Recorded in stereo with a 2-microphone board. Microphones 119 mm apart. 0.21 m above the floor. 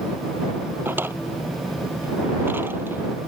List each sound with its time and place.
0.8 s a drawer: 20° right (ahead or behind)